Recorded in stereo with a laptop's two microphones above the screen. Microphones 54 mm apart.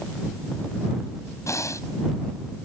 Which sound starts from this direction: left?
Breathing, at 1.5 s.